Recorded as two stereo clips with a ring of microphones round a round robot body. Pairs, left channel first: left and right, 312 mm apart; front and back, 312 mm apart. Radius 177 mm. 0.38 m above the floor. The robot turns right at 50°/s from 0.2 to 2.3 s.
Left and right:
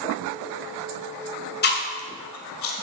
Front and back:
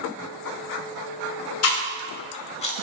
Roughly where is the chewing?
Ahead left.